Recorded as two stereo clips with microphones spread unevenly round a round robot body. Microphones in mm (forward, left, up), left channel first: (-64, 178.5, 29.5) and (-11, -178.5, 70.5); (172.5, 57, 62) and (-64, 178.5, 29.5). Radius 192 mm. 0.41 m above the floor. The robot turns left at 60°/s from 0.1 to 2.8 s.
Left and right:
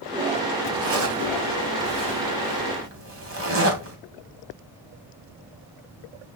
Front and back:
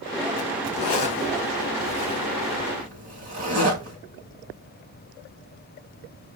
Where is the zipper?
15° right, 3 m; by 4.0 s 135° right, 3 m.